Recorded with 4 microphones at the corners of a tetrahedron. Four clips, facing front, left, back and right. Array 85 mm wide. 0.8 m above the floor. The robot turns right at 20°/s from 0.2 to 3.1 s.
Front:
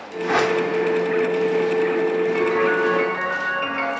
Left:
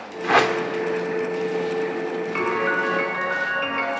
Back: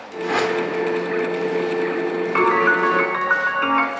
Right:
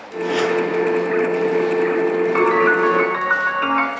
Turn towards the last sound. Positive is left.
turn(degrees=-135)